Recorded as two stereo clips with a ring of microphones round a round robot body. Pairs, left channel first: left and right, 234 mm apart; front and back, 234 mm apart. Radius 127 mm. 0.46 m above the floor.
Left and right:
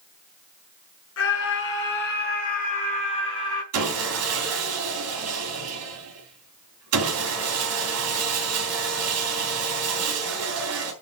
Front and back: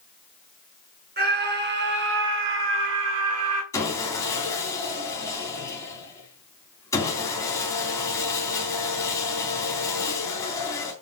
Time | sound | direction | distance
1.2 | a scream | 135° left | 6 m
3.7 | sawing | 80° right | 3.5 m